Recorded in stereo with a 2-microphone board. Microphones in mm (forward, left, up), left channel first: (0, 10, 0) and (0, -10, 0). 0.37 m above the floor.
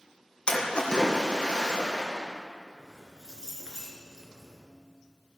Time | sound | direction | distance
0.5 | a splash | 50° left (ahead or behind) | 3.5 m
2.8 | keys jangling | 35° right (ahead or behind) | 3.5 m